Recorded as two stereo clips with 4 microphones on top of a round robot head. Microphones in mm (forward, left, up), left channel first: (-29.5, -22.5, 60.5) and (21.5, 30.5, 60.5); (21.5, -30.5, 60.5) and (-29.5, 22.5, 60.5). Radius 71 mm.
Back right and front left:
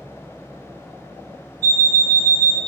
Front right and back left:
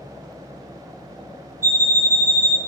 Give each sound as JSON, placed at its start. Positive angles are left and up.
{"t": 1.6, "sound": "an alarm clock", "azimuth_deg": 75, "distance_m": 0.5}